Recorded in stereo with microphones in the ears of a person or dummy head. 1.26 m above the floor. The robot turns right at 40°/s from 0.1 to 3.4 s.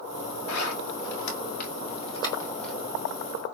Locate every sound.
0.5 s a zipper: 85° left, 1.7 m; by 2.7 s 5° left (ahead or behind), 1.7 m